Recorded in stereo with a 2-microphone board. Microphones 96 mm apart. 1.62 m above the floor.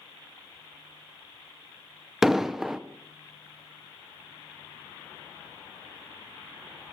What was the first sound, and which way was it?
An explosion, 5° right (ahead or behind).